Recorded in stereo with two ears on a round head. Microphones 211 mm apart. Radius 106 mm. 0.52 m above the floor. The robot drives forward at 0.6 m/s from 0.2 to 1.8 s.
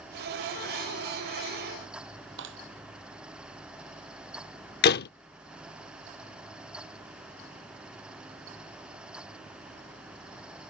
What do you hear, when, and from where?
2.4 s a clap: 50° right (ahead or behind)
4.8 s a door slam: 40° left (ahead or behind)